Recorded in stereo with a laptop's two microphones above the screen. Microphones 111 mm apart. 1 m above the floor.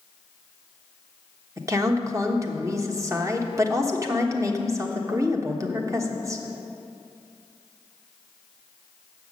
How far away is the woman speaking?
About 1.1 m.